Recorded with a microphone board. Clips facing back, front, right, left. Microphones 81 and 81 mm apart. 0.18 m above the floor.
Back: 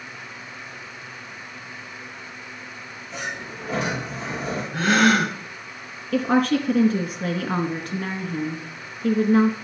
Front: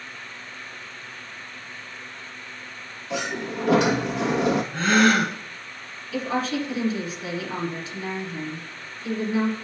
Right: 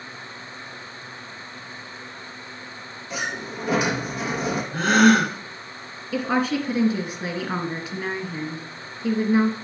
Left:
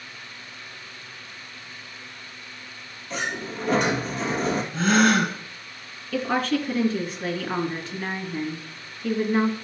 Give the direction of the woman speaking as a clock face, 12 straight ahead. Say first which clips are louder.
Back 6 dB, right 1 dB; 6 o'clock.